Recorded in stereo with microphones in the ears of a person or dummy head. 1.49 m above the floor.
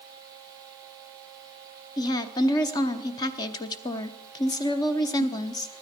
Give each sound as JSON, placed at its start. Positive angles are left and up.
{"t": 2.0, "sound": "a woman speaking", "side_deg": 25, "distance_m": 0.8}